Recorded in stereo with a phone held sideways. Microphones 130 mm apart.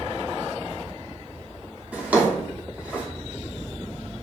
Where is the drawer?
10° right (ahead or behind), 0.8 m.